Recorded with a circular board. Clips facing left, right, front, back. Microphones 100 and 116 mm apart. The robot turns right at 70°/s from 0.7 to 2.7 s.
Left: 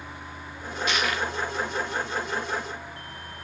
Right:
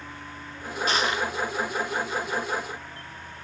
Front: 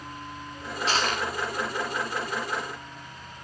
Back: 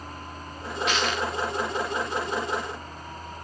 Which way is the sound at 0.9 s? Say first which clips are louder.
Right 2 dB, even; 45° right.